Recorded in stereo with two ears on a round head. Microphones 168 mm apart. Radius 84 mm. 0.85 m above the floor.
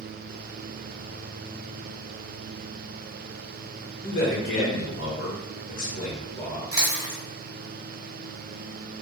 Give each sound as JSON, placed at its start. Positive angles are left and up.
{"t": 4.0, "sound": "a man speaking", "side_deg": 40, "distance_m": 0.9}
{"t": 6.7, "sound": "chewing", "side_deg": -15, "distance_m": 1.0}